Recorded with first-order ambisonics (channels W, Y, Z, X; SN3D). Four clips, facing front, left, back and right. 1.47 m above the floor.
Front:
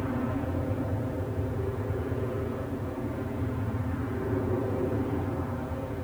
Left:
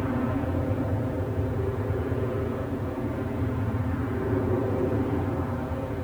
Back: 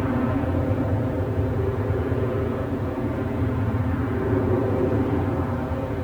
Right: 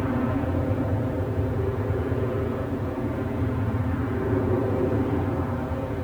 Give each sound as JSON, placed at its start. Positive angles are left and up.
{"t": 0.0, "sound": "an aircraft", "azimuth_deg": -160}